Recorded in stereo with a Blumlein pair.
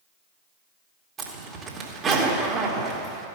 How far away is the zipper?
About 2 m.